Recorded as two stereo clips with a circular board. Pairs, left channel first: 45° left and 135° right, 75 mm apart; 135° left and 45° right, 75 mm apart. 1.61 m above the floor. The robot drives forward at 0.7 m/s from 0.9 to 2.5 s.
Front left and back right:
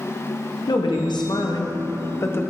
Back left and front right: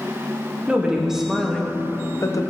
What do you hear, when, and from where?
0.7 s a woman speaking: 35° left, 1.1 m; by 2.4 s 105° left, 0.7 m